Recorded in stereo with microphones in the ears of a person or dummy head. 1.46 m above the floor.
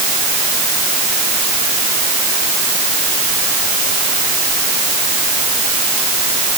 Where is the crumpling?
I don't hear crumpling.